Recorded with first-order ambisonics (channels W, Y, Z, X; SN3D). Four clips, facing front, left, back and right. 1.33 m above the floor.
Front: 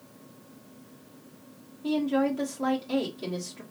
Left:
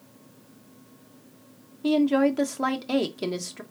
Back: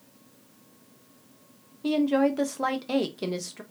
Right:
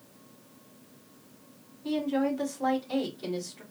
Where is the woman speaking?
120° left, 1.3 m.